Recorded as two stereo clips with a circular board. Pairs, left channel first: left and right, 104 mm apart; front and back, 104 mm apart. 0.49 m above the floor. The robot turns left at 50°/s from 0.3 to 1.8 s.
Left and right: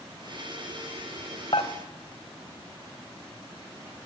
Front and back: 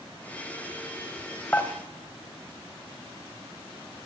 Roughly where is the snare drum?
No snare drum in this recording.